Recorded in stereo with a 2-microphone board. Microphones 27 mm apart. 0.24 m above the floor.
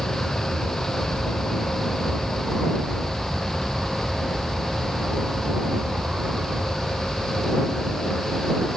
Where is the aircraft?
35° left (ahead or behind); by 8.8 s 60° right (ahead or behind).